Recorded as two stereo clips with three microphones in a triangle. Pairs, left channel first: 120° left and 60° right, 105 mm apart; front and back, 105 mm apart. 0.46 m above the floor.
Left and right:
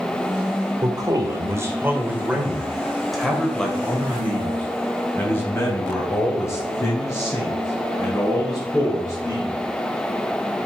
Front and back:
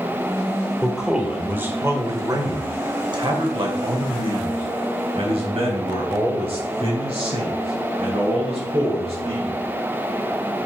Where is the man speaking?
90° right, 2 m; by 9.6 s 175° left, 6.5 m.